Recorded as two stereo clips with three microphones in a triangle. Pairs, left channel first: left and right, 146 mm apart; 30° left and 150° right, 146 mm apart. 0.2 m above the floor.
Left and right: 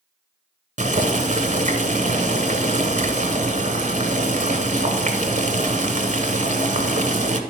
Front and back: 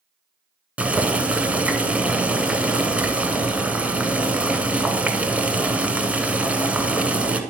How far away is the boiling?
About 0.8 m.